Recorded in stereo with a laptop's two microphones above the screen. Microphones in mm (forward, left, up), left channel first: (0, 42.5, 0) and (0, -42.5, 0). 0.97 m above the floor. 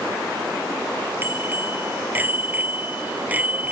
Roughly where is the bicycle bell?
Right.